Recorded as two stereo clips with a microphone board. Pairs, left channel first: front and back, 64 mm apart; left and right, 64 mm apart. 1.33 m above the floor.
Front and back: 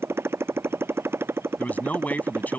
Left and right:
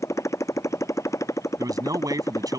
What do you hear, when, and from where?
0.0 s a motorcycle: 130° left; by 2.6 s 125° left
1.6 s a man speaking: 65° right